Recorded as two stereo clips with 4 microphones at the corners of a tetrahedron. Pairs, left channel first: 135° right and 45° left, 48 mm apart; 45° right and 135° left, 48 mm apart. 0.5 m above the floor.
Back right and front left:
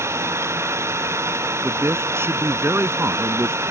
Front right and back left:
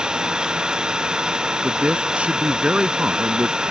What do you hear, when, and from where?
0.0 s an engine running: 60° left
1.6 s a man speaking: 70° left